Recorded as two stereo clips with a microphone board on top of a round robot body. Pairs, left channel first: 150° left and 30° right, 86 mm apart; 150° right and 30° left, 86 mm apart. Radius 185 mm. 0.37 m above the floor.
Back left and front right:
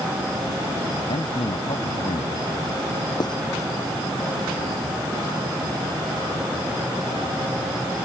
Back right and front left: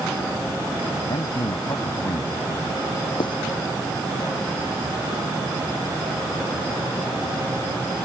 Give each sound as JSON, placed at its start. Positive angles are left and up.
{"t": 1.1, "sound": "a man speaking", "azimuth_deg": 165}
{"t": 3.2, "sound": "writing", "azimuth_deg": -175}